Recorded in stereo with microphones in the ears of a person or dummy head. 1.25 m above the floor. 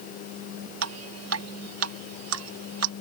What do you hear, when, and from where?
0.8 s dripping: 80° right